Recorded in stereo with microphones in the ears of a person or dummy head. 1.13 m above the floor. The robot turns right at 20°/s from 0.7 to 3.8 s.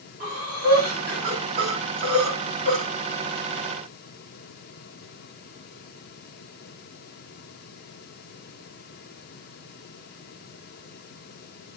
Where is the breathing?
45° right (ahead or behind), 5 m; by 2.9 s 80° right, 5 m.